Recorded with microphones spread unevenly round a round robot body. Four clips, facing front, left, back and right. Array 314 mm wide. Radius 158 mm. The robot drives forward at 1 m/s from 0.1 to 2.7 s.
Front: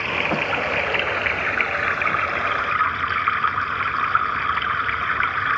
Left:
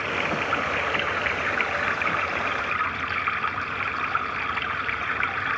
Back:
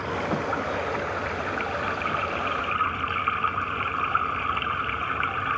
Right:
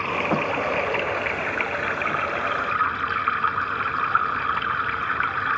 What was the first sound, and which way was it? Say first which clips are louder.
Running water: right 3 dB, front 3 dB; 10° right.